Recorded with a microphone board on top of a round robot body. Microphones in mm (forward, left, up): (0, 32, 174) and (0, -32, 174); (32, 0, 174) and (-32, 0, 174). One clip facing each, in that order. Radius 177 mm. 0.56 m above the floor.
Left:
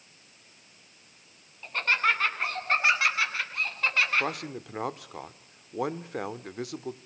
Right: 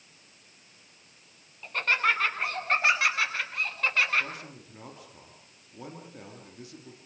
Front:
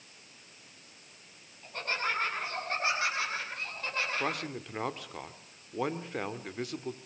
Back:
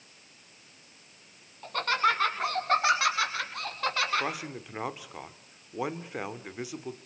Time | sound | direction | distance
1.6 | laughter | straight behind | 7 m
4.2 | a man speaking | 100° left | 2 m